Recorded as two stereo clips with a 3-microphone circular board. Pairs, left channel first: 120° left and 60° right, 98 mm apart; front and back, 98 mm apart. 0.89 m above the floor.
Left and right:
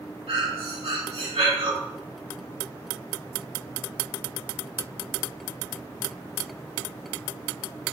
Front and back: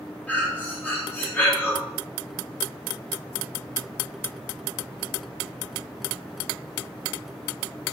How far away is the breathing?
About 1.7 m.